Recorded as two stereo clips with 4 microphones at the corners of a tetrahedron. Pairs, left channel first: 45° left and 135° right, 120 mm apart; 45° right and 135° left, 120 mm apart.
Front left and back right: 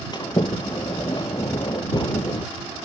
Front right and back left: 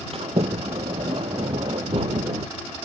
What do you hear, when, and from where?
0.1 s a sliding door: 100° left